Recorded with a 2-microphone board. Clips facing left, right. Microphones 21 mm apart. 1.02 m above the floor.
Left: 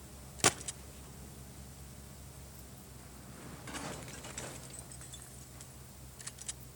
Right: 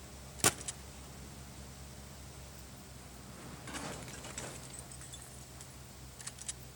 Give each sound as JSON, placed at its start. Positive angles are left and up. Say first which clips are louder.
{"t": 0.4, "sound": "a gunshot", "louder": "left 2 dB", "side_deg": 15, "distance_m": 0.6}